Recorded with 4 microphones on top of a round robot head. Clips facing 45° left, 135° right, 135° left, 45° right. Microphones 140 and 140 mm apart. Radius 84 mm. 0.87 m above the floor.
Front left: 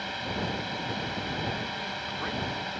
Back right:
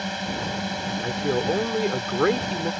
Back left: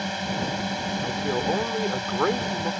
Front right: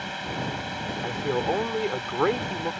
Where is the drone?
175° right.